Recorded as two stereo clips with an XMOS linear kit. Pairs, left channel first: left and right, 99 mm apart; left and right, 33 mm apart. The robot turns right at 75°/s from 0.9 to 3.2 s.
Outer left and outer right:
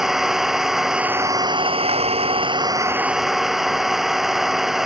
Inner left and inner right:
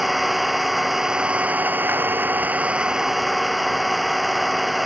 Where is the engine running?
175° right; by 4.9 s 5° right.